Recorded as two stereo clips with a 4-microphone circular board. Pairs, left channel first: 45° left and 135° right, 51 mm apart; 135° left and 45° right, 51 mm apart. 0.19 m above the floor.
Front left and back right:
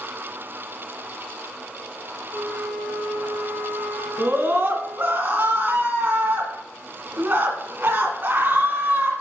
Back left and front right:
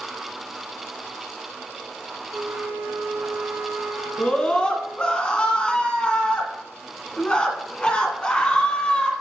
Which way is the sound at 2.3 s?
80° right.